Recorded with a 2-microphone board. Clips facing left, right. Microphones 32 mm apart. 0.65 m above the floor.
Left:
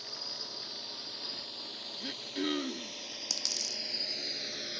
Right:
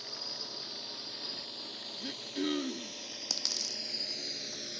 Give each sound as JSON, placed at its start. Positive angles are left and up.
{"t": 0.0, "sound": "a drone", "side_deg": 0}
{"t": 2.0, "sound": "throat clearing", "side_deg": 15}
{"t": 3.3, "sound": "a dropped coin", "side_deg": -10}